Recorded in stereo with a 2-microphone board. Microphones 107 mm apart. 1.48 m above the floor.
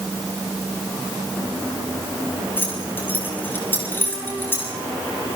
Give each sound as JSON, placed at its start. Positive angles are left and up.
{"t": 2.6, "sound": "keys jangling", "side_deg": 20, "distance_m": 7.0}